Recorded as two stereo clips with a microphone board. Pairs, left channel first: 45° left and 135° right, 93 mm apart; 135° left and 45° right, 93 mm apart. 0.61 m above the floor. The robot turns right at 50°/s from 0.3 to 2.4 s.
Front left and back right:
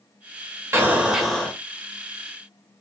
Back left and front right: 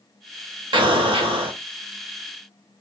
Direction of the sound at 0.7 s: 70° right.